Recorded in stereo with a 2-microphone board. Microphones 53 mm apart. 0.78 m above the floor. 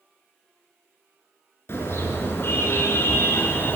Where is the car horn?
55° left (ahead or behind), 5.5 m; by 3.8 s 50° left (ahead or behind), 2.5 m.